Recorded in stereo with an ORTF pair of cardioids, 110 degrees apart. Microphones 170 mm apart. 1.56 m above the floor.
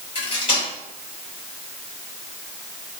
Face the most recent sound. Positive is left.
turn(degrees=30)